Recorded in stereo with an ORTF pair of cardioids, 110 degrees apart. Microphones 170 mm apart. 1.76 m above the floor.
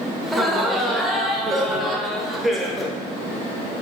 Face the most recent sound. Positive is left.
turn(degrees=0)